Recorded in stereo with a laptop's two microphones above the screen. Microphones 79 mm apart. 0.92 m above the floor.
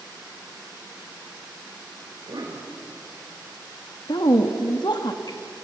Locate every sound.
2.1 s a cough: 80° right, 4.5 m
4.1 s a woman speaking: 65° left (ahead or behind), 1.3 m